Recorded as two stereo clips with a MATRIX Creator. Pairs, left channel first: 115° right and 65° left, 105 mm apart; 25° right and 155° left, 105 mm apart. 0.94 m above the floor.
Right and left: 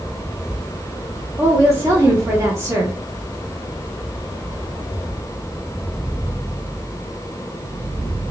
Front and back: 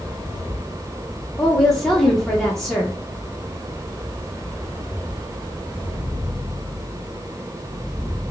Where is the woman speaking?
60° left, 0.9 m.